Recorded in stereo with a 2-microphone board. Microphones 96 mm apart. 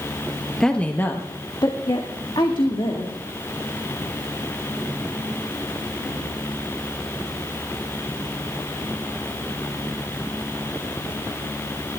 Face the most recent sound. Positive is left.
turn(degrees=65)  # may be behind; listen again after turning